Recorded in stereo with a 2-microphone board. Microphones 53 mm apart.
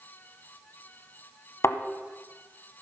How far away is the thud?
About 0.7 m.